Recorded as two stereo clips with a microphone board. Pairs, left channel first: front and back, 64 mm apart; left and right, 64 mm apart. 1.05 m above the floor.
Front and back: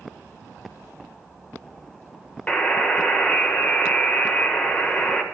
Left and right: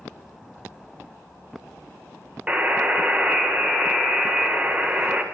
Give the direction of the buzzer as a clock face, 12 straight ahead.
2 o'clock.